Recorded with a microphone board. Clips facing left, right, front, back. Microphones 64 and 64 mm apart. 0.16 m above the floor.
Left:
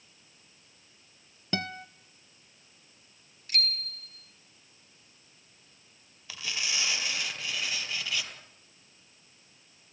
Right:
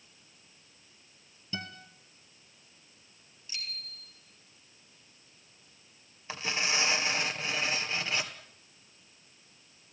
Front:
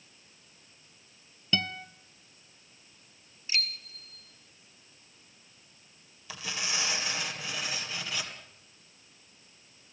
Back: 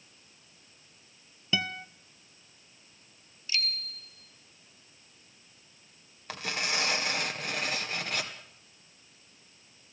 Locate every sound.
1.5 s a guitar: 100° left, 0.9 m
3.5 s a bicycle bell: 70° left, 2.5 m
6.3 s tearing paper: 145° right, 2 m